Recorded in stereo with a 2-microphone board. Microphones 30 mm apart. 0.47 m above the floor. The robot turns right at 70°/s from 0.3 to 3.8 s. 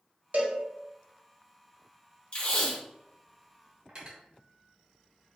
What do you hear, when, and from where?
0.3 s a cowbell: 70° right (ahead or behind), 0.7 m; by 0.6 s 80° right, 0.7 m
2.3 s tape being pulled: 115° left, 1.2 m; by 2.8 s 150° left, 1.2 m
3.9 s cutlery clinking: 30° right (ahead or behind), 0.8 m